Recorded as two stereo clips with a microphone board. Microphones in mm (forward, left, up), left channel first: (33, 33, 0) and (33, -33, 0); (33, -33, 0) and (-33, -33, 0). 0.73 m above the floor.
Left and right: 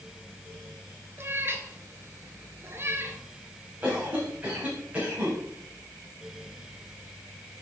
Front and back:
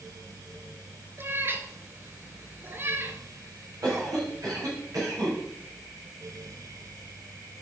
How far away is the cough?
About 4 m.